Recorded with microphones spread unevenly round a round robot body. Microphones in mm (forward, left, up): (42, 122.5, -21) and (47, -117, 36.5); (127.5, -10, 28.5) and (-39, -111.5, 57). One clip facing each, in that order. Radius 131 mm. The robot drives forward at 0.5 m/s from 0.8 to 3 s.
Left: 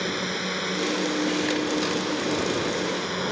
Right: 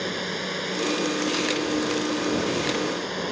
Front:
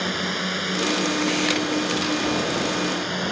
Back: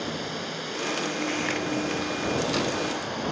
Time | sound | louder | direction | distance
0.0 | a drone | left 1 dB, front 4 dB | 20° left | ?